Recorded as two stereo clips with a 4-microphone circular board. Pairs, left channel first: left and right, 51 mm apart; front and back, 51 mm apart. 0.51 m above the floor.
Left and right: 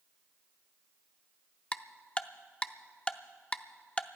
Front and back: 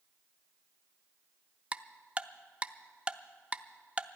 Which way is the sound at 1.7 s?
140° left.